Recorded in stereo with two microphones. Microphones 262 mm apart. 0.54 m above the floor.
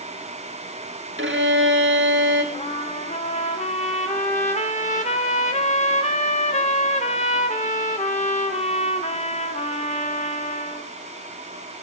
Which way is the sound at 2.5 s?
30° left (ahead or behind).